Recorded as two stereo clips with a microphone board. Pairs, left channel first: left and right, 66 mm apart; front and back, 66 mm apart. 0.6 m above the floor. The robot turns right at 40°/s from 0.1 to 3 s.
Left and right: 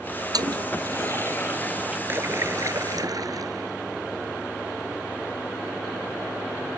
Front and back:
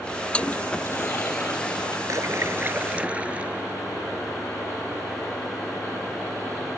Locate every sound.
0.3 s a toilet flushing: 75° right; by 2.0 s 10° right
2.1 s a splash: 145° right; by 3.7 s 110° right